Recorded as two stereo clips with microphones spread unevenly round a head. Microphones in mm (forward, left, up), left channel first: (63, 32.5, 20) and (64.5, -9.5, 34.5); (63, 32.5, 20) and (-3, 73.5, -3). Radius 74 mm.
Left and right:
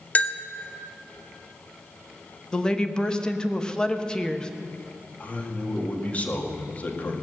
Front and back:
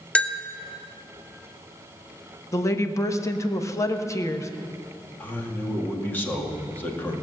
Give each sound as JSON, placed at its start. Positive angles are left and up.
{"t": 0.1, "sound": "a bell", "azimuth_deg": 50, "distance_m": 0.8}
{"t": 2.5, "sound": "a woman speaking", "azimuth_deg": 25, "distance_m": 1.2}
{"t": 5.2, "sound": "a man speaking", "azimuth_deg": 40, "distance_m": 2.0}